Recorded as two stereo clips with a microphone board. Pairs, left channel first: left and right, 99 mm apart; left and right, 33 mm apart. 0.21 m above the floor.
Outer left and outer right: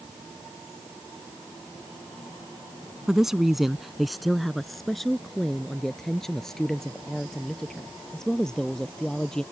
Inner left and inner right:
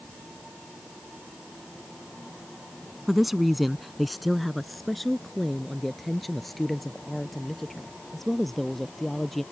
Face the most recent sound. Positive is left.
turn(degrees=5)  # may be behind; listen again after turning